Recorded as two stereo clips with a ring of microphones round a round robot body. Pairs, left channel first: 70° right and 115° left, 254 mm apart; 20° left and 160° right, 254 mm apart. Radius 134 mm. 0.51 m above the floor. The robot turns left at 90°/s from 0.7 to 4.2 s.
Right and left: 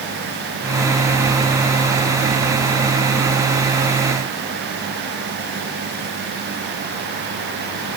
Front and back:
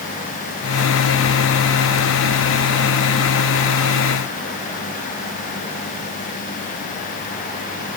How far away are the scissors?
No scissors in this recording.